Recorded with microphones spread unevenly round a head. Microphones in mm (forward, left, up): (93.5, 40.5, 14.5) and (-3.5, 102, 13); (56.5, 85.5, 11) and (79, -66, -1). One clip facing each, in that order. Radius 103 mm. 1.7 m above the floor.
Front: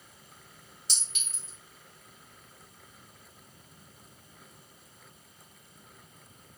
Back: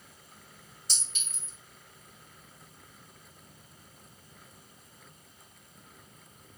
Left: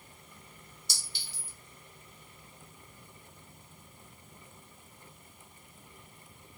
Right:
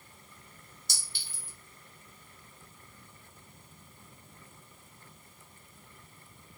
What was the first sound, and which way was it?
A clink, 50° right.